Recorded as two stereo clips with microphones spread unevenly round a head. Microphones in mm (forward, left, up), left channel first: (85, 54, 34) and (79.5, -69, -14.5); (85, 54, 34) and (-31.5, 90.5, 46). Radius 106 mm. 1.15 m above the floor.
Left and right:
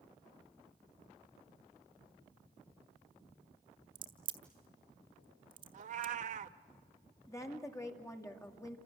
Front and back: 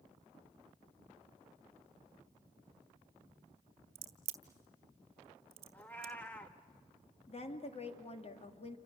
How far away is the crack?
About 1.1 m.